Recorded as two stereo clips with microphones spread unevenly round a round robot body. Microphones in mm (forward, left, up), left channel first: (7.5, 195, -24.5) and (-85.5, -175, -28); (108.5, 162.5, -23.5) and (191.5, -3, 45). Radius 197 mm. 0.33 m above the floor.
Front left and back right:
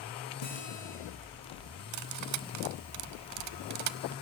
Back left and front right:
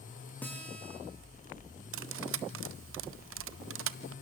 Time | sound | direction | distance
0.4 | a guitar | 35° left | 9 m
1.9 | cutlery clinking | 60° right | 0.8 m